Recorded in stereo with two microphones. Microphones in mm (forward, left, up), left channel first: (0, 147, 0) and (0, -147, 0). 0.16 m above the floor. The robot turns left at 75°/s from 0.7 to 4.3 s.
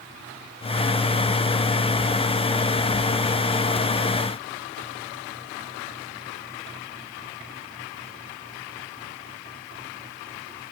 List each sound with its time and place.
Only background noise.